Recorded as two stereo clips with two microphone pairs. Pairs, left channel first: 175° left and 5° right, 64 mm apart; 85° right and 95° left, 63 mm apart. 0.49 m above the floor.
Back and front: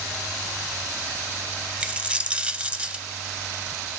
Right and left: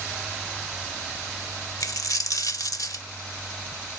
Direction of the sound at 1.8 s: 75° right.